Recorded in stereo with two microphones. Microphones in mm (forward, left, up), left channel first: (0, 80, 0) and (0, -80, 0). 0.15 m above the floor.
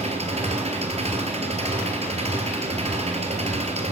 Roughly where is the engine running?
Right.